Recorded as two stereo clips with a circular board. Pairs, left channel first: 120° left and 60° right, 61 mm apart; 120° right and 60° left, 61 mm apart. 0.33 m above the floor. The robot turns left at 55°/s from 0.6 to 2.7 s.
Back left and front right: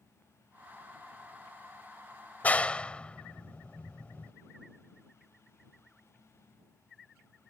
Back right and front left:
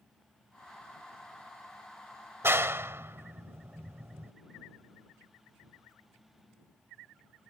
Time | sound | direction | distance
2.4 | a clap | 75° left | ?